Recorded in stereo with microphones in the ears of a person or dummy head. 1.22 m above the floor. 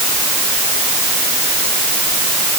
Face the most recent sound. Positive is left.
No sound to turn to.